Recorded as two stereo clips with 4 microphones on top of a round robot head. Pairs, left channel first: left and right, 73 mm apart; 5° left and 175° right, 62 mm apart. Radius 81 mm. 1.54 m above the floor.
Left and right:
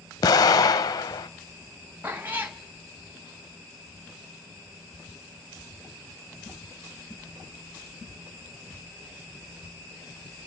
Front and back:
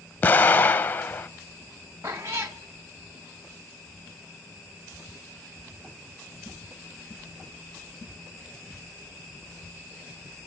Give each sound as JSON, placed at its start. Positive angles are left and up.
{"t": 0.2, "sound": "an explosion", "azimuth_deg": 60, "distance_m": 0.8}
{"t": 2.0, "sound": "a cat meowing", "azimuth_deg": -155, "distance_m": 0.8}